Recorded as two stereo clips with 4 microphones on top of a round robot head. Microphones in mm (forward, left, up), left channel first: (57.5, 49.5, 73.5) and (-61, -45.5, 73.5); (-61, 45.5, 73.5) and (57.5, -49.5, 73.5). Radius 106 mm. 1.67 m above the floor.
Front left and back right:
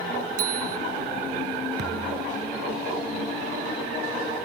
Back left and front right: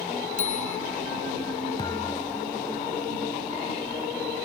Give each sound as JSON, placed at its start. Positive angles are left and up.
{"t": 0.4, "sound": "a bicycle bell", "azimuth_deg": -175}
{"t": 1.8, "sound": "a thud", "azimuth_deg": -155}